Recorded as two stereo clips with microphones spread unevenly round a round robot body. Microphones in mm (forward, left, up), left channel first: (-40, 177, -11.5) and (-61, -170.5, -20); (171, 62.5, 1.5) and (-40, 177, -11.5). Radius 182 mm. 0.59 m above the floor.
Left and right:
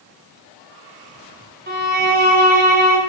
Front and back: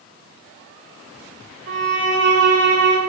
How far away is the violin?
About 5 m.